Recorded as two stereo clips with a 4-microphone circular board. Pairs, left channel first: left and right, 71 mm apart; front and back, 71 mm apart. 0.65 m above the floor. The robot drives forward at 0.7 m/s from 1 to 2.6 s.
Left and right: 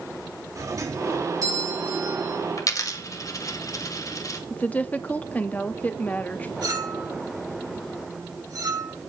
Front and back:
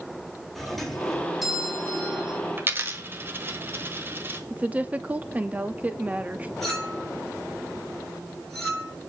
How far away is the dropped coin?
About 1.3 m.